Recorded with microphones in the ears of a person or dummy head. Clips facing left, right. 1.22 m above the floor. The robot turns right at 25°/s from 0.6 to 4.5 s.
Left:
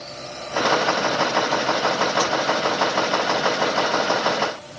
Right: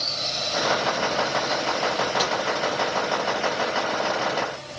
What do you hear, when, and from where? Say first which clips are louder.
2.2 s tapping: left 3 dB; 10° right (ahead or behind), 7.5 m